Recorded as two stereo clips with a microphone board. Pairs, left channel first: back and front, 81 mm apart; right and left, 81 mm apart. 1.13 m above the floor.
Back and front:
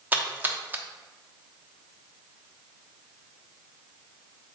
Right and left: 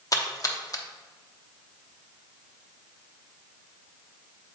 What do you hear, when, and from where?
0.1 s a splash: 65° right, 0.8 m